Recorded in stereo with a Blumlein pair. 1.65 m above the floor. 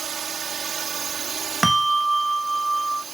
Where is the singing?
No singing in this recording.